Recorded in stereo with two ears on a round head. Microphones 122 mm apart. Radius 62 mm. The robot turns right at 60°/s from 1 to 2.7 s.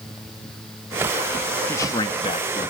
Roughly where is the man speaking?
Ahead left.